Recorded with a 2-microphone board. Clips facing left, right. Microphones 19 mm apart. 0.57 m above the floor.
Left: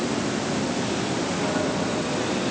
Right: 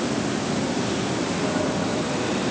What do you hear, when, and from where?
Only background noise.